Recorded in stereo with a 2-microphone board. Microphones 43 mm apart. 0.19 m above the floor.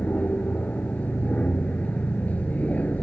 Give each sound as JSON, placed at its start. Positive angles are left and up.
{"t": 0.0, "sound": "an aircraft", "side_deg": 40}